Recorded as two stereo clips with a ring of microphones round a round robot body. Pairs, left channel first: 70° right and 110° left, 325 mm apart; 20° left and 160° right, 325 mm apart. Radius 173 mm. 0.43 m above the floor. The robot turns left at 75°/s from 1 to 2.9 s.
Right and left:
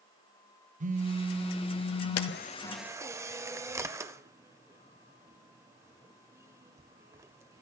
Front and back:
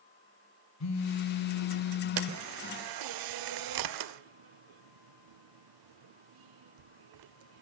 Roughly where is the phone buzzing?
Ahead left.